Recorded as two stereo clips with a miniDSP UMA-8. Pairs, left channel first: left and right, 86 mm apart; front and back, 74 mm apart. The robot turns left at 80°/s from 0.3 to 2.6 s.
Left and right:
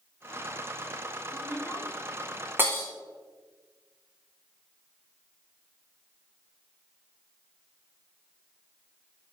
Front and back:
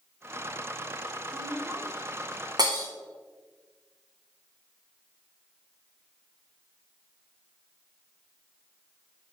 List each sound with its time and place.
1.3 s a woman speaking: 165° right, 1.9 m; by 1.9 s 150° left, 1.9 m
2.6 s breaking glass: 155° right, 1.8 m